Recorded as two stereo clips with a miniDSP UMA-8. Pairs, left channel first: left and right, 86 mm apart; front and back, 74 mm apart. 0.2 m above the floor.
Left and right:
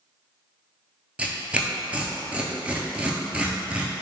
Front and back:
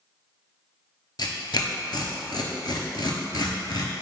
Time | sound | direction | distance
1.2 | tearing paper | 15° right | 0.5 m